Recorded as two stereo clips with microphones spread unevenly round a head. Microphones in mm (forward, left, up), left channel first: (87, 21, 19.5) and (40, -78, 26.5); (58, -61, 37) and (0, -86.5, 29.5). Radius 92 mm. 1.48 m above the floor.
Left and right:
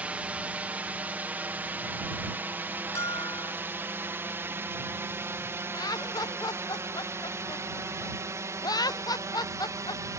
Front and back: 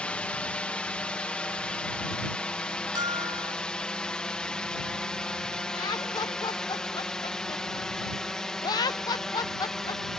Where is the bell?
140° left.